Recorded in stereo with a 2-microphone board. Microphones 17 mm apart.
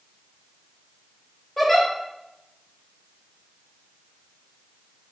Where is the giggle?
15° left (ahead or behind), 1.4 m.